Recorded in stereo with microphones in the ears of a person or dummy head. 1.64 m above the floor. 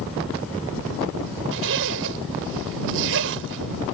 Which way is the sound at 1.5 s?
70° right (ahead or behind).